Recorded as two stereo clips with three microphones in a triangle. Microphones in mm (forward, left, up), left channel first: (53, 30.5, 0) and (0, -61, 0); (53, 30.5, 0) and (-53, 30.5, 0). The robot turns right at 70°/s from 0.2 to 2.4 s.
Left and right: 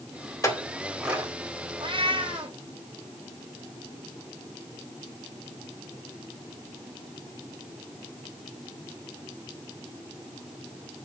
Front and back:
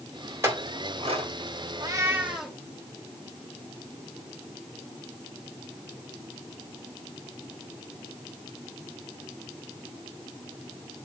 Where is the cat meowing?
140° right, 1.1 m; by 2.6 s 100° right, 1.1 m.